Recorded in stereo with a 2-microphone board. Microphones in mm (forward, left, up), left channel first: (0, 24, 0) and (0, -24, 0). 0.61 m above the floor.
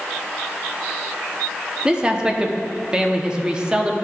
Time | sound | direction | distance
1.9 | a man speaking | 20° right (ahead or behind) | 0.8 m